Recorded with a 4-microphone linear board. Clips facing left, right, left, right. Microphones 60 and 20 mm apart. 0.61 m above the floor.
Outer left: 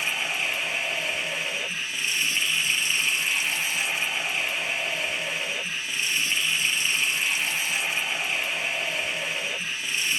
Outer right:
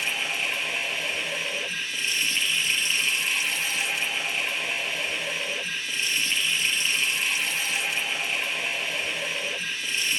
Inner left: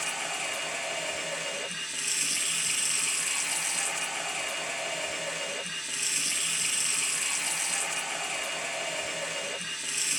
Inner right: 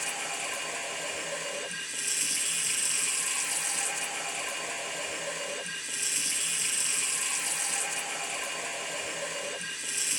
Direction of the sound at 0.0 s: 10° left (ahead or behind).